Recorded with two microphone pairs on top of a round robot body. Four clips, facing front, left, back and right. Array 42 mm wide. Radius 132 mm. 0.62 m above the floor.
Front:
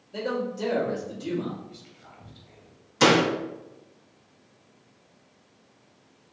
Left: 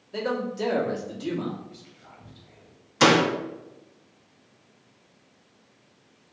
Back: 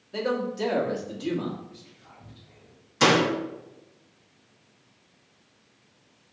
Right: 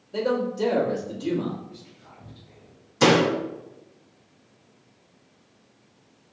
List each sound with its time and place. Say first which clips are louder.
0.1 s a man speaking: right 3 dB, back 2 dB; 145° left, 1.3 m
1.7 s whispering: right 2 dB, front 1 dB; 25° left, 1.4 m
3.0 s a door slam: even, front 1 dB; 100° left, 1.0 m